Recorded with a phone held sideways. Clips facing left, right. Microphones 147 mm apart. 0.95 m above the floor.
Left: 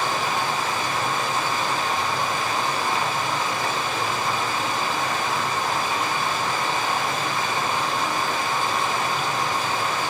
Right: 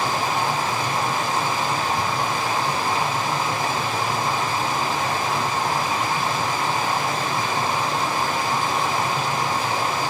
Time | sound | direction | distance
0.0 | running water | 35° right (ahead or behind) | 1.2 m